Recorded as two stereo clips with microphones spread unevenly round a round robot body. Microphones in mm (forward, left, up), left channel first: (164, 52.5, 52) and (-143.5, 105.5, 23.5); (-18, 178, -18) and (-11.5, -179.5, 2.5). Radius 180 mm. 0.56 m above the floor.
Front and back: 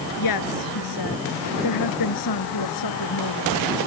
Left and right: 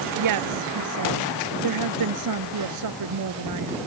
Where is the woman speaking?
50° right.